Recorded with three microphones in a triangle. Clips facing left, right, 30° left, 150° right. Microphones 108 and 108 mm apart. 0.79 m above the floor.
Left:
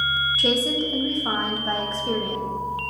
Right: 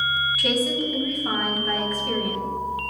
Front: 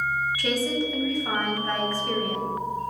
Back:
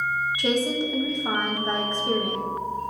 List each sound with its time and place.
0.4 s a woman speaking: 150° left, 0.5 m